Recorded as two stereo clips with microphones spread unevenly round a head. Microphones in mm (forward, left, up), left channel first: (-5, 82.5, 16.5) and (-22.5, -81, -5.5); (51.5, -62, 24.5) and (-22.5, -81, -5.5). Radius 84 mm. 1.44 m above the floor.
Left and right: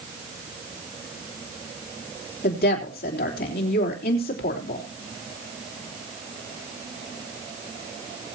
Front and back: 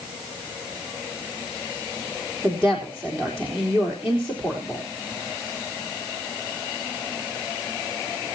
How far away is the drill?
No drill in this recording.